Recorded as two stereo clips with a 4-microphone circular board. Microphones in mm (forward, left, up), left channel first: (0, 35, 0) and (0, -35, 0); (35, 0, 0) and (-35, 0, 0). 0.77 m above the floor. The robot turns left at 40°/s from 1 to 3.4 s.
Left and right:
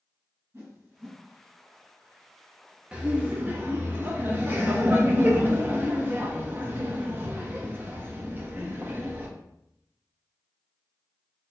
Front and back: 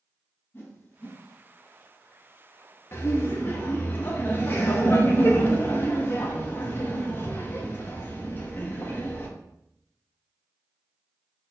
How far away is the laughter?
About 0.8 m.